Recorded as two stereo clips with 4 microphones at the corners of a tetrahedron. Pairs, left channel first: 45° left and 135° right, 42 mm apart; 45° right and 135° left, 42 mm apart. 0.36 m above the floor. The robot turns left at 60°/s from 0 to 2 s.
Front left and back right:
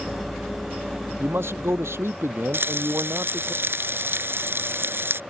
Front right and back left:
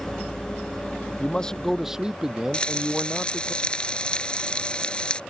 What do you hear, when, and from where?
1.2 s a man speaking: 100° right; by 3.5 s 150° right
2.5 s frying: 110° right